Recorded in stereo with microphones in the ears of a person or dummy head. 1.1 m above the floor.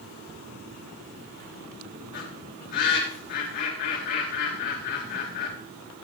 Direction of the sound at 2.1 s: 55° left (ahead or behind).